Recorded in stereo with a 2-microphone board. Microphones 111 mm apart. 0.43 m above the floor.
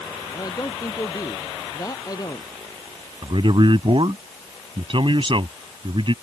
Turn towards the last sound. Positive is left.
turn(degrees=-50)  # may be behind; listen again after turning